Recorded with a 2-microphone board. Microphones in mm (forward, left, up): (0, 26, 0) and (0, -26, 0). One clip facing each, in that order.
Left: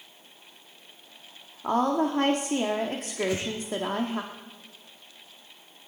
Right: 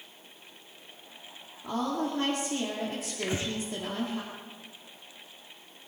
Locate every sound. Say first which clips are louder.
1.6 s a woman speaking: left 6 dB; 60° left (ahead or behind), 1.6 m
3.2 s breathing: left 4 dB; 30° right (ahead or behind), 0.9 m